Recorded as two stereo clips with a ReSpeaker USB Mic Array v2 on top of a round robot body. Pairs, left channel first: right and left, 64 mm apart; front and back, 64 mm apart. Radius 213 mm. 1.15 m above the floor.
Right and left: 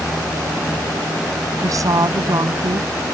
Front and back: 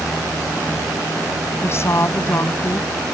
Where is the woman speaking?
55° left.